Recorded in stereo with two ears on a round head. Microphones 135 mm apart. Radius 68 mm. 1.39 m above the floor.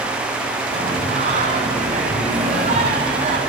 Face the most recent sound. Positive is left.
turn(degrees=-40)  # may be behind; listen again after turning